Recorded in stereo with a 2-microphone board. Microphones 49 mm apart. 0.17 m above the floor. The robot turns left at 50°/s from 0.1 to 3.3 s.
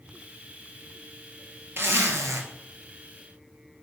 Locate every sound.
1.8 s a zipper: 60° right, 0.6 m; by 2.4 s 90° right, 0.6 m